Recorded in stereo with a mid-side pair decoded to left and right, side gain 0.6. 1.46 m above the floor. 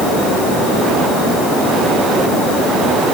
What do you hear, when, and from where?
Only background noise.